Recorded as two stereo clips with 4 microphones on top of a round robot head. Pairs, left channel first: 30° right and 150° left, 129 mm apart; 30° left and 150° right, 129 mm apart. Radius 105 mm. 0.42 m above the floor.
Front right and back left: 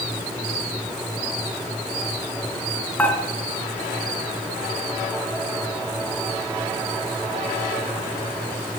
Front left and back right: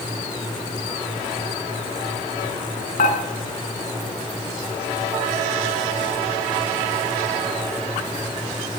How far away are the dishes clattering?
About 4 m.